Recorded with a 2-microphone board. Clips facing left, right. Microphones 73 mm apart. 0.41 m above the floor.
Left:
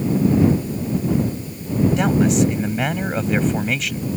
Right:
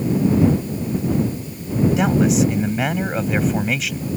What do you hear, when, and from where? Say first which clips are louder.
2.0 s a man speaking: even; 5° right (ahead or behind)